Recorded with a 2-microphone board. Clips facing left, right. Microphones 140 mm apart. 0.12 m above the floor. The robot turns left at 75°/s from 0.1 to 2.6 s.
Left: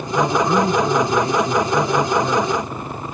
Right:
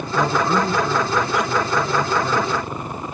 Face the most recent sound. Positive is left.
turn(degrees=0)